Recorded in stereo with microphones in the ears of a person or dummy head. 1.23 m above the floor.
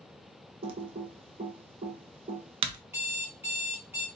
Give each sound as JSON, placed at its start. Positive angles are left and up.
{"t": 0.6, "sound": "typing on a keyboard", "side_deg": -30, "distance_m": 0.8}
{"t": 2.9, "sound": "an alarm clock", "side_deg": -10, "distance_m": 1.2}